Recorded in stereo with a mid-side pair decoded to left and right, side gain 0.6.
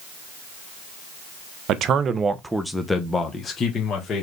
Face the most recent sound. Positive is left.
turn(degrees=40)